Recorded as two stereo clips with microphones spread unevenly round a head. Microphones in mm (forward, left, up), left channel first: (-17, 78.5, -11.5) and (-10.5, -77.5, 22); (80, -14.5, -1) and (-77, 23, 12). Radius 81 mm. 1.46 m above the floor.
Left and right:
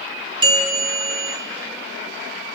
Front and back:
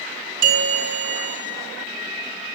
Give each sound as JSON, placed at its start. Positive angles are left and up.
{"t": 0.4, "sound": "a bell", "azimuth_deg": -150, "distance_m": 4.5}